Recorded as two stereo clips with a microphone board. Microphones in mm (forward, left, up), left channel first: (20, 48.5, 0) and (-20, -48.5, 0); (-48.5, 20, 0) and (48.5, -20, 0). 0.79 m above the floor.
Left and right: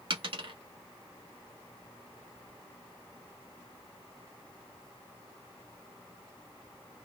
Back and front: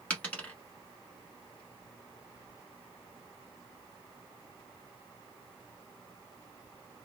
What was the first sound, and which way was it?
A dropped coin, 125° right.